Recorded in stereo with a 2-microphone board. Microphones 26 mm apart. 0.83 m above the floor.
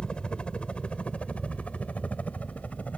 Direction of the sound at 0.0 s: 40° left (ahead or behind).